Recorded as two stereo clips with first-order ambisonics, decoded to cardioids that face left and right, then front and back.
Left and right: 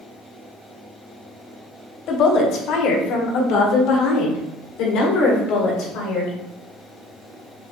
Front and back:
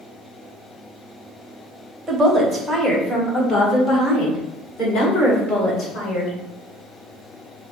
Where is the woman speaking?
110° left, 1.0 m; by 6.3 s 65° left, 3 m.